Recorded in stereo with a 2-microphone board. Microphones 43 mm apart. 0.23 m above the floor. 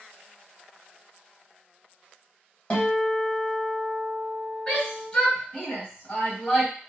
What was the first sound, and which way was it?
A guitar, 25° left (ahead or behind).